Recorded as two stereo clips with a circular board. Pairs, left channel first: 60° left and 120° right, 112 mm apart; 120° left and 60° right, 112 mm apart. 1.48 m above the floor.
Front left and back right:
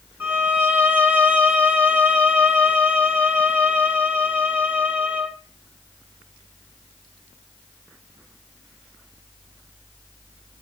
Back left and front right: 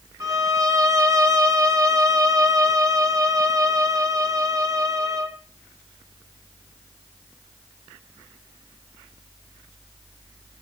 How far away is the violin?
About 1.2 m.